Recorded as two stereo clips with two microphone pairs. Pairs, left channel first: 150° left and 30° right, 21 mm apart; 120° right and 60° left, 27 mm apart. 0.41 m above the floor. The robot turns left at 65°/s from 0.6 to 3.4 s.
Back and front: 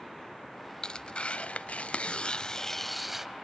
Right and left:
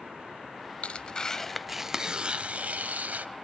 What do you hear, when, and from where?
0.8 s tearing paper: 160° right, 0.5 m; by 3.3 s 40° left, 0.5 m